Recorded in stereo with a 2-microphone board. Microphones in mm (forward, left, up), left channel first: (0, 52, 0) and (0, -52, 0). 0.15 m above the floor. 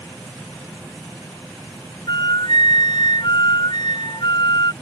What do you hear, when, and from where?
2.1 s a flute: 45° left (ahead or behind)